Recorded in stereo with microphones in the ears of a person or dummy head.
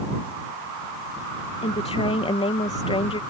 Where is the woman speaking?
20° left (ahead or behind).